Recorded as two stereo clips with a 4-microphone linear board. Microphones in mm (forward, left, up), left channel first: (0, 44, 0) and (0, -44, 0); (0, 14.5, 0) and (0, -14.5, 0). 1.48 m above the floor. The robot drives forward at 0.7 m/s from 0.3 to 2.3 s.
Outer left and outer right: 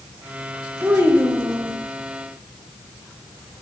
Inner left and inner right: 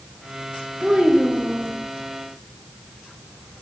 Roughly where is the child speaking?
Right.